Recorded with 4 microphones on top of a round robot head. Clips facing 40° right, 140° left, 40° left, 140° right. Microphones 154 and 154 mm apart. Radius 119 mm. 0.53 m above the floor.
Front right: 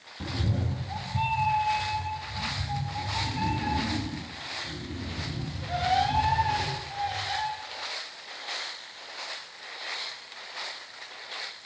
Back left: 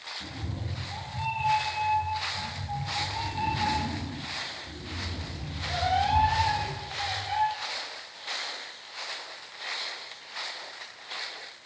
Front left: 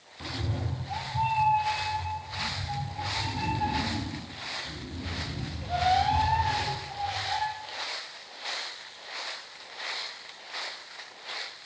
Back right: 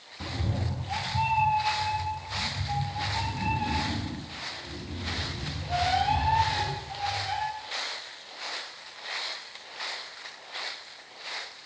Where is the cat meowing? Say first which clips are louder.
Front right 8 dB, back right 1 dB; 65° right, 0.5 m.